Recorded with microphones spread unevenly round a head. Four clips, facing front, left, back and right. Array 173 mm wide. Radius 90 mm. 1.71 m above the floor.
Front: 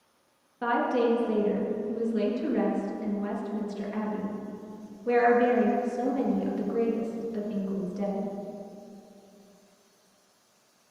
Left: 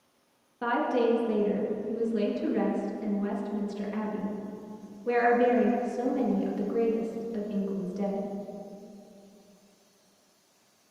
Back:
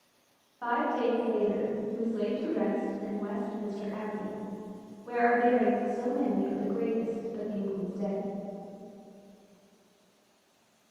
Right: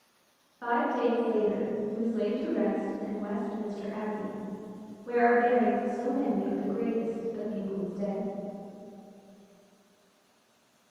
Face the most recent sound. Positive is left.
turn(degrees=60)